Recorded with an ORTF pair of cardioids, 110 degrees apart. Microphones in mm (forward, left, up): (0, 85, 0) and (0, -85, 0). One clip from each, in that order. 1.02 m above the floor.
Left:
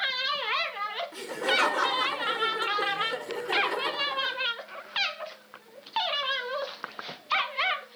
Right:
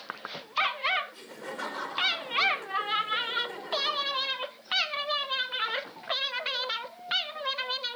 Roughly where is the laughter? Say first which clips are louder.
Left 13 dB; ahead left.